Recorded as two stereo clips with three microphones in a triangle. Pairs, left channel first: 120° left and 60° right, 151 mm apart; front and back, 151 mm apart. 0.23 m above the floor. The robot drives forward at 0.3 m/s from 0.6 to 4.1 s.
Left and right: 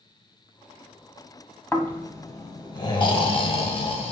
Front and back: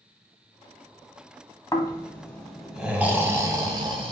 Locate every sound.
1.7 s snoring: 50° left, 0.6 m; by 4.1 s 145° left, 0.7 m